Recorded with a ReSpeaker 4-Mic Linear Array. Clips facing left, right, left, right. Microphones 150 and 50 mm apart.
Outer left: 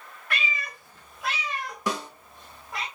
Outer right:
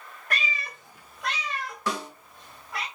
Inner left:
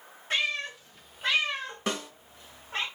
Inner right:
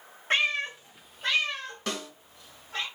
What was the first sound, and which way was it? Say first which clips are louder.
A cat meowing: even, inner right 3 dB; 40° right (ahead or behind).